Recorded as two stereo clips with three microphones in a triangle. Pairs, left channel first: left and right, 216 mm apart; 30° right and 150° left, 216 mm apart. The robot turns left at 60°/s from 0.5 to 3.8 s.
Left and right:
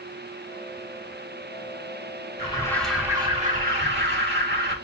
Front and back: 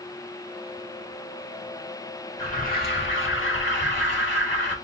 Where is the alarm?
30° left, 1.3 m; by 4.8 s 55° right, 1.3 m.